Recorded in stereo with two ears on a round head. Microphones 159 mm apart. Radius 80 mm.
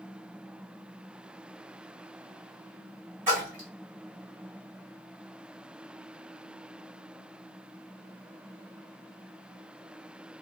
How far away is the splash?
About 1.7 m.